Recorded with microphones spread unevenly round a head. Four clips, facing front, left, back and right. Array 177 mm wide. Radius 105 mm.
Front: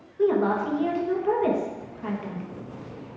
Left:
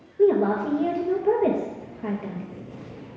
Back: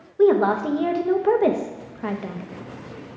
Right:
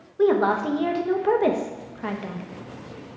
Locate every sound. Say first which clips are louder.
0.2 s a woman speaking: even, back 5 dB; 170° left, 0.8 m